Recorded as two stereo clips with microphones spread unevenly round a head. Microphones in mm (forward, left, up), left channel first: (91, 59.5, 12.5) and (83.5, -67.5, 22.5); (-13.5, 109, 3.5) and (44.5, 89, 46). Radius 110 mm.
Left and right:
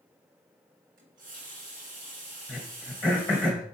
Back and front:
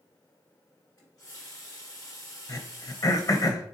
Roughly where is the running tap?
Right.